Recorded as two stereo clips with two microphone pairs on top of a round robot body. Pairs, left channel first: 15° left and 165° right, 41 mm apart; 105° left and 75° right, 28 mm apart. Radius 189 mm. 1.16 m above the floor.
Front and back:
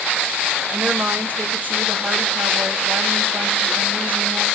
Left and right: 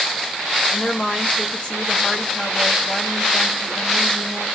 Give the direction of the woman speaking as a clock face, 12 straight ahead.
7 o'clock.